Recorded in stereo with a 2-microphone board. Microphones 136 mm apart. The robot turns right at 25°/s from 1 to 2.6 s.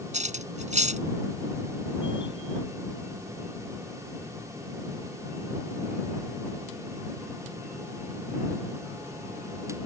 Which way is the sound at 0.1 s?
60° right (ahead or behind).